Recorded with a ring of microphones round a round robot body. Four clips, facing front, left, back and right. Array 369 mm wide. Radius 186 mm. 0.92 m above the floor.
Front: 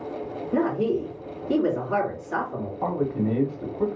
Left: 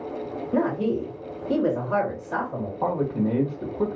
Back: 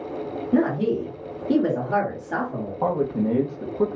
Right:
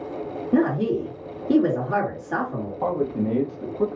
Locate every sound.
0.5 s a woman speaking: 140° right, 2.5 m
2.8 s a man speaking: 165° left, 1.5 m